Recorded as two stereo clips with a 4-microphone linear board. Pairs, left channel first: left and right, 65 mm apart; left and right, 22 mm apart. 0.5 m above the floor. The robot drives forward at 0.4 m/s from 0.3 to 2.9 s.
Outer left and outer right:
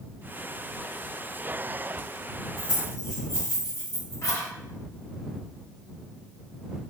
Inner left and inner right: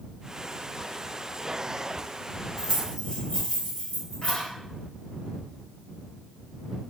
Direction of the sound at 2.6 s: 50° left (ahead or behind).